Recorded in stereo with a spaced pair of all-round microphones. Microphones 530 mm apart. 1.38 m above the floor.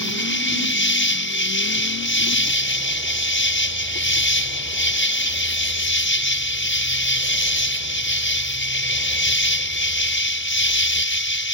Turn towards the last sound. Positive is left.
turn(degrees=20)  # may be behind; listen again after turning